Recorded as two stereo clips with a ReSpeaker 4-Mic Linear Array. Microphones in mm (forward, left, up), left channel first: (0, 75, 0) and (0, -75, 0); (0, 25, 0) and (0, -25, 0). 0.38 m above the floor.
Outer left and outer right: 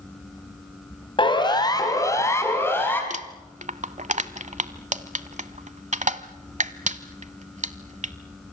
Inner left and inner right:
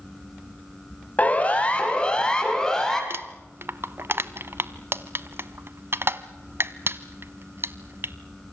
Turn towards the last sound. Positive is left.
turn(degrees=-55)  # may be behind; listen again after turning